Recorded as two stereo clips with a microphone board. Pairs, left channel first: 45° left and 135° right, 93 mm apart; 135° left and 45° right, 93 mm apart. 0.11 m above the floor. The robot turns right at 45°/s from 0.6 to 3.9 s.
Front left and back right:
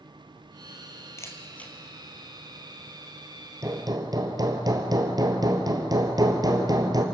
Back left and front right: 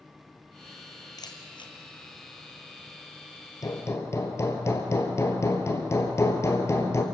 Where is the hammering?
175° left, 1.9 m; by 7.0 s 170° right, 1.9 m.